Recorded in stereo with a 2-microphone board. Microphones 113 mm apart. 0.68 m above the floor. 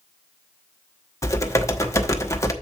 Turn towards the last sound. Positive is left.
turn(degrees=25)  # may be behind; listen again after turning